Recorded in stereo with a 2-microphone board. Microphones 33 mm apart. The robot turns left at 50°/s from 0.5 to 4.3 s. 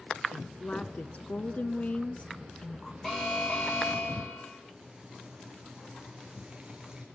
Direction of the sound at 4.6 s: 20° right (ahead or behind).